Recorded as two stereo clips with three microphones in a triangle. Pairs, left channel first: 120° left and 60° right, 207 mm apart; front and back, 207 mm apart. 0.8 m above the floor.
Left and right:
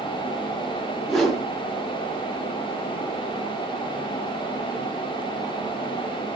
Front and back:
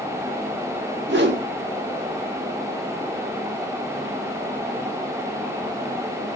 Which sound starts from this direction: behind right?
A whoosh, at 1.1 s.